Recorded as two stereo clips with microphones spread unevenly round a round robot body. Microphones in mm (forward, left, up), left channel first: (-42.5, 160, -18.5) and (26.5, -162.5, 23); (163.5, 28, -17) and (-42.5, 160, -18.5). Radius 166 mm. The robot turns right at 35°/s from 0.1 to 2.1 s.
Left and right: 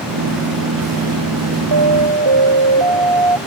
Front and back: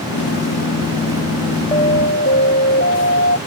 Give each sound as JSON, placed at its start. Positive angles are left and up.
{"t": 1.7, "sound": "an alarm", "azimuth_deg": -110}